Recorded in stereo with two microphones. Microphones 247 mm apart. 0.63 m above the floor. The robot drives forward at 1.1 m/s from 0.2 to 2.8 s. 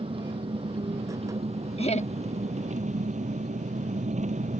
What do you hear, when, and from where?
0.0 s an engine running: 20° right (ahead or behind); by 4.6 s 30° right (ahead or behind)
1.8 s laughter: 25° left (ahead or behind); by 2.1 s 30° left (ahead or behind)